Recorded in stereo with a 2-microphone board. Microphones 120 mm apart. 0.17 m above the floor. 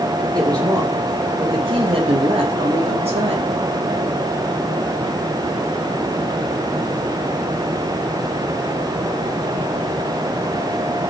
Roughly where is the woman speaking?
Right.